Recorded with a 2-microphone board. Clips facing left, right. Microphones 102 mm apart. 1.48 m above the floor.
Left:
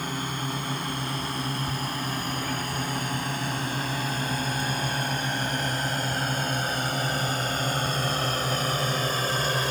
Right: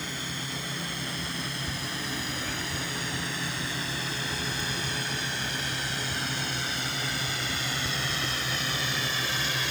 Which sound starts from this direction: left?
A drone, at 0.0 s.